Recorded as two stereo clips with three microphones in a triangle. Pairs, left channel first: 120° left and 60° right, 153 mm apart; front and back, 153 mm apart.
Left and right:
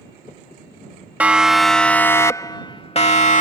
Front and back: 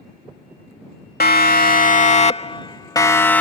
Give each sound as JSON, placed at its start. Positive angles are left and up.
{"t": 1.2, "sound": "a siren", "azimuth_deg": 20}